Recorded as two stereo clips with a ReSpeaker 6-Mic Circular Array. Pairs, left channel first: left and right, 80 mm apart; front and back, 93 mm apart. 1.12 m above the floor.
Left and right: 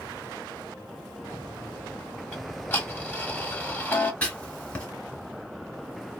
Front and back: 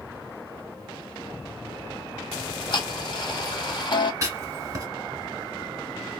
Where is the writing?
160° left, 1.2 m.